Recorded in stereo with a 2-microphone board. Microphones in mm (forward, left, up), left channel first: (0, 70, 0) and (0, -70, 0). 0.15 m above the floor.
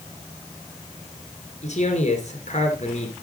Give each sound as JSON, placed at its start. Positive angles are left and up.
{"t": 1.6, "sound": "a man speaking", "side_deg": 55, "distance_m": 2.5}